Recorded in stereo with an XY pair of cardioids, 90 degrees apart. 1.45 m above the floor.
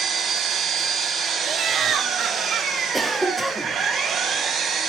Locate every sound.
0.0 s an engine running: 70° right, 4.5 m
1.4 s laughter: 65° right, 1.0 m
2.9 s a cough: 10° right, 4.5 m